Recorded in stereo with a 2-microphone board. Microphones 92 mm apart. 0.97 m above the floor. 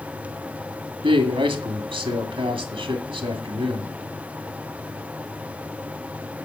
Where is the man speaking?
75° right (ahead or behind), 1.9 m.